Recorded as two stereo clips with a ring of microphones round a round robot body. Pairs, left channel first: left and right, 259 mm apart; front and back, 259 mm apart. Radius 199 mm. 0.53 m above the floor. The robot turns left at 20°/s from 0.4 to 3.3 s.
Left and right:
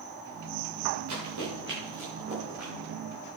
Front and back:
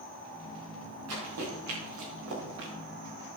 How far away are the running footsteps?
About 5 m.